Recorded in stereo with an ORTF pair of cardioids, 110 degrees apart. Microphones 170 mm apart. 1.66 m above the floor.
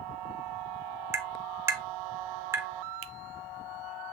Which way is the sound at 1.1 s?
15° right.